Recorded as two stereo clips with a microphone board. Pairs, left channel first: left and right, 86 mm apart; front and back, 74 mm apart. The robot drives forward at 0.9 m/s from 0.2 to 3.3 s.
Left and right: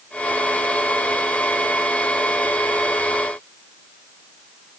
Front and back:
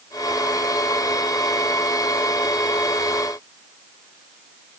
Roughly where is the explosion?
I don't hear an explosion.